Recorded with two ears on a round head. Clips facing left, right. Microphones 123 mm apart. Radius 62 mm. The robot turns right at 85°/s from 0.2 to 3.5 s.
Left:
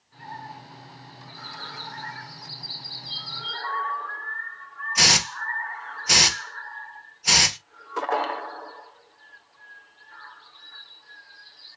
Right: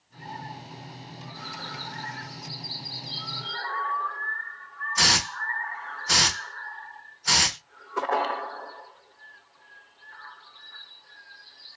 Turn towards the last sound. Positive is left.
turn(degrees=20)  # may be behind; listen again after turning